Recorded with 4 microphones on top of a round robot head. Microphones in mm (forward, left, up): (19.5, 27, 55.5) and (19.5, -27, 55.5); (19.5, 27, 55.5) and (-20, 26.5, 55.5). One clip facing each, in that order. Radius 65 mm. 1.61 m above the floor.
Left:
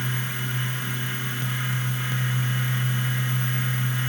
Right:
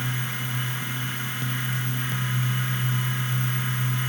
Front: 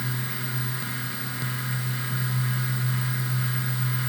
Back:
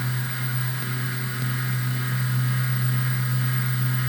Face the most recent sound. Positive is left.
No sound to turn to.